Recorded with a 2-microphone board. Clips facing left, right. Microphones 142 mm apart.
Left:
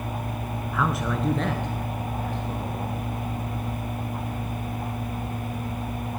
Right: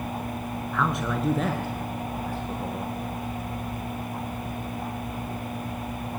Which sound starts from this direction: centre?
A man speaking, at 0.7 s.